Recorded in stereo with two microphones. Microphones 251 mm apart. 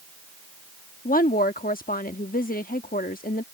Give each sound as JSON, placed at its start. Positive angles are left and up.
{"t": 1.1, "sound": "a woman speaking", "side_deg": 35}